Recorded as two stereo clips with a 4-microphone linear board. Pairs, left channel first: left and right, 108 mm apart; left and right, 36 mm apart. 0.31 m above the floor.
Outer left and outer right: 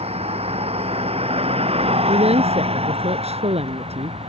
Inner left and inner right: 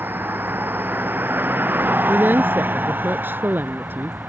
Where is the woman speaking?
70° right (ahead or behind).